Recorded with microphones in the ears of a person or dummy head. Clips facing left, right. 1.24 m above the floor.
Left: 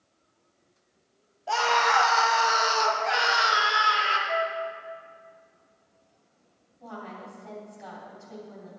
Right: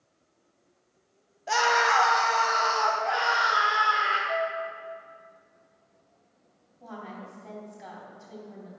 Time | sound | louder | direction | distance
1.5 | a scream | even | 20° right (ahead or behind) | 1.0 m
4.3 | a flute | even | 15° left (ahead or behind) | 0.6 m
6.8 | a woman speaking | even | centre (ahead or behind) | 3 m